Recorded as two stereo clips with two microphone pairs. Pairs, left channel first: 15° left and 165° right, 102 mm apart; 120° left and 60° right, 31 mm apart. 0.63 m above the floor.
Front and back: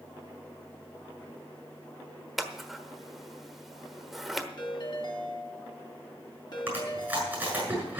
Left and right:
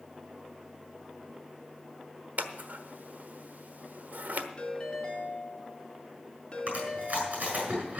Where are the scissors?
75° right, 1.1 m.